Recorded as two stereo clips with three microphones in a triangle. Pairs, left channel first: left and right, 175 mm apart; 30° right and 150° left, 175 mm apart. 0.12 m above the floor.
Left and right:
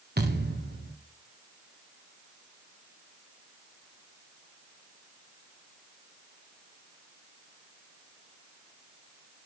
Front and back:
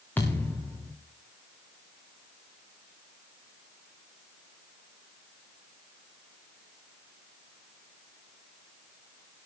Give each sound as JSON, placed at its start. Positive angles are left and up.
{"t": 0.2, "sound": "a thud", "azimuth_deg": -110, "distance_m": 5.0}